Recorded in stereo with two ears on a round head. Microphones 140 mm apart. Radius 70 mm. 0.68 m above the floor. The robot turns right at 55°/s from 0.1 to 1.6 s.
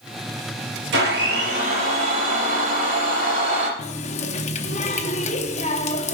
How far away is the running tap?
About 0.6 m.